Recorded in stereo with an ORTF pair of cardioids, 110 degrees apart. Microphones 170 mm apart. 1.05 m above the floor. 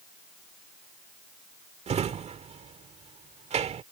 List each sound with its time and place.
1.9 s a drawer: 40° right